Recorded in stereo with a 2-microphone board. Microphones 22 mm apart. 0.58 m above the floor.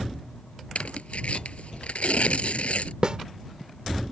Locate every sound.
0.8 s tearing paper: 75° left (ahead or behind)
3.0 s a snare drum: 40° right (ahead or behind)